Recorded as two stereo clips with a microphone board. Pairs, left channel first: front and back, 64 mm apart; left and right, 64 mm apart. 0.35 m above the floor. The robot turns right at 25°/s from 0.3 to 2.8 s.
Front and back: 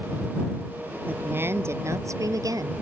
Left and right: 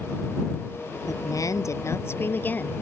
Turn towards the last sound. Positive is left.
turn(degrees=160)